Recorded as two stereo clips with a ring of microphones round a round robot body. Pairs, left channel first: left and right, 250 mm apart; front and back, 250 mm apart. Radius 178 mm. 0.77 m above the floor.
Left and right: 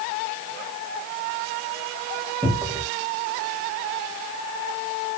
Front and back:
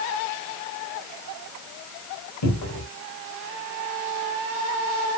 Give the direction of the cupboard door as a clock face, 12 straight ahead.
12 o'clock.